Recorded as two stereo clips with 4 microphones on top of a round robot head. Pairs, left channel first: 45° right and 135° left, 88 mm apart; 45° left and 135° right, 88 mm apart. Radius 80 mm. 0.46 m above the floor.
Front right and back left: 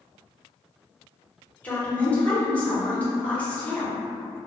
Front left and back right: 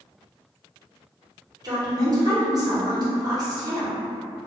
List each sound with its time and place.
1.6 s a woman speaking: 115° right, 1.0 m